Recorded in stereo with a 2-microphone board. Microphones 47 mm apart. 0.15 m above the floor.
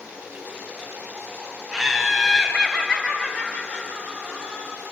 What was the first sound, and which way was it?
Laughter, 5° right (ahead or behind).